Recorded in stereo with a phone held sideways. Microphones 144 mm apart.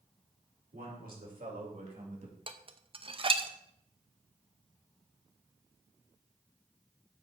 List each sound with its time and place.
0.7 s a man speaking: 80° right, 3.5 m; by 2.4 s 50° right (ahead or behind), 2.5 m
2.5 s dishes clattering: 40° right (ahead or behind), 0.6 m